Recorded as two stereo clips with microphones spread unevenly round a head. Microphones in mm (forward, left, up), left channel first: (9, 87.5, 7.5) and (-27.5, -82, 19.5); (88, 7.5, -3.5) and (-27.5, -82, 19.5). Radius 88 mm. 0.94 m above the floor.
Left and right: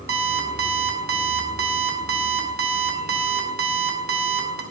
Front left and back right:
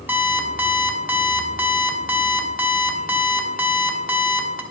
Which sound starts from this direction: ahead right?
An alarm clock, at 0.1 s.